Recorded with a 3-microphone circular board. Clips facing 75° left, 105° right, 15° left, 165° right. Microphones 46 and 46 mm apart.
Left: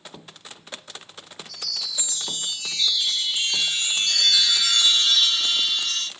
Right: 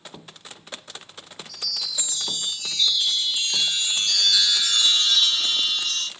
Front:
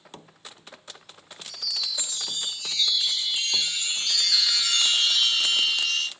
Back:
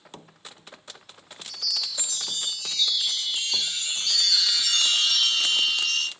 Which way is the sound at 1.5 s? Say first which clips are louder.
Even, front 1 dB; 100° left.